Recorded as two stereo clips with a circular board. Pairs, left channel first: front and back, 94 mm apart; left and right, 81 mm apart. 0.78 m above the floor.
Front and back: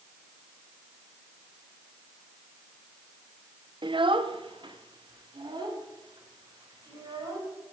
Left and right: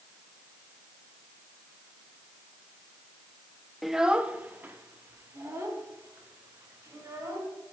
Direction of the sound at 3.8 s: Straight behind.